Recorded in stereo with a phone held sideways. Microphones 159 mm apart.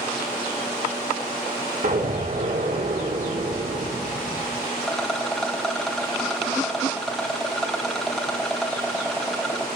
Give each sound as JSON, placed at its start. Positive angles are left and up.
{"t": 1.8, "sound": "an explosion", "side_deg": -60, "distance_m": 5.0}
{"t": 4.8, "sound": "a rattle", "side_deg": 0, "distance_m": 1.9}